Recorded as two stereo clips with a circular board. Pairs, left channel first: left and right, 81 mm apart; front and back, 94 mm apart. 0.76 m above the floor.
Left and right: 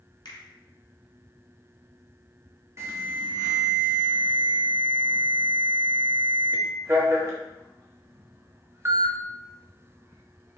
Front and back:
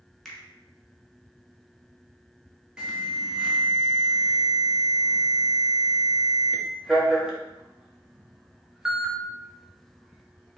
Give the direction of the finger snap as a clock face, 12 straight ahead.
9 o'clock.